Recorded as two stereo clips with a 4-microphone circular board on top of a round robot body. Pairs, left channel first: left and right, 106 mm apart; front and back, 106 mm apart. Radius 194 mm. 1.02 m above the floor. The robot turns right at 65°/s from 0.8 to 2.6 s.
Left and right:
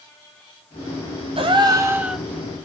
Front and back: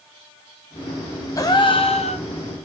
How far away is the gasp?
About 1.0 m.